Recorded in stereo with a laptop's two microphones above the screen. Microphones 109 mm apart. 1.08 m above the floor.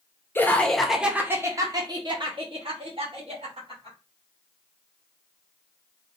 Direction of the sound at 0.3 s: 20° left (ahead or behind).